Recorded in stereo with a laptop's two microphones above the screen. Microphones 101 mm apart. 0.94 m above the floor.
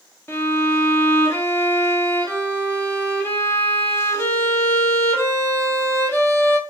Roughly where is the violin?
Left.